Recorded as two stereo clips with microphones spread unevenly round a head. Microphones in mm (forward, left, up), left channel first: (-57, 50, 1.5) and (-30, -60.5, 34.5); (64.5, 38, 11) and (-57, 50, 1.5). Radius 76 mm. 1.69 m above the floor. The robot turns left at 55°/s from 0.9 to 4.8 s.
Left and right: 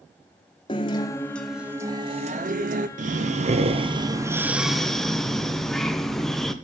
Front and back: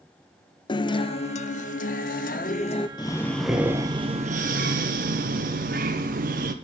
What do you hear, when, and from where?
0.7 s a guitar: 45° left, 0.7 m; by 2.9 s 65° right, 0.7 m
3.0 s breathing: 70° right, 1.1 m; by 6.5 s 170° right, 1.1 m